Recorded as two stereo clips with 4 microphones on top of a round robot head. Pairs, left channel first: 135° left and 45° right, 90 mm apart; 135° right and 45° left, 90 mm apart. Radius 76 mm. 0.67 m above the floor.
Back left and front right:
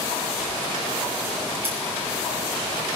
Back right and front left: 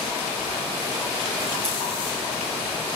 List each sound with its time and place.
1.6 s scissors: 25° left, 5.5 m